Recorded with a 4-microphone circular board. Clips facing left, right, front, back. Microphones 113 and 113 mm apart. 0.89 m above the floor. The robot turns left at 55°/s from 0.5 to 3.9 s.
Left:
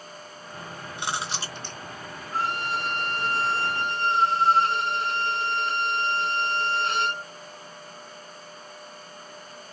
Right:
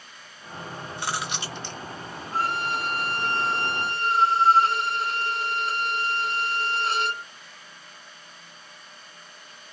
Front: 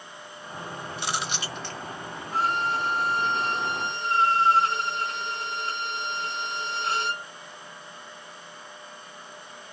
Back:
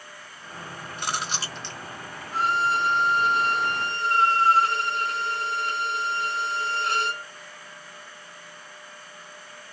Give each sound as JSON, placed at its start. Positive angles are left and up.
{"t": 1.0, "sound": "chewing", "azimuth_deg": 160, "distance_m": 0.8}
{"t": 2.3, "sound": "a violin", "azimuth_deg": 30, "distance_m": 1.3}